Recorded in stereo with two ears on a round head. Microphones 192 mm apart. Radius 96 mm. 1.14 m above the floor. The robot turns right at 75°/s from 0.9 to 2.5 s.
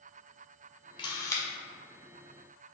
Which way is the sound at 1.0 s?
20° left (ahead or behind).